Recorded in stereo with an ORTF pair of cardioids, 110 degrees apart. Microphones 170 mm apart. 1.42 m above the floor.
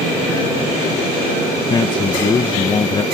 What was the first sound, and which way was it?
A man speaking, 30° left.